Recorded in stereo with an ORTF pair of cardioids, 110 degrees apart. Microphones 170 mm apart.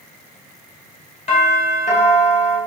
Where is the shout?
I don't hear a shout.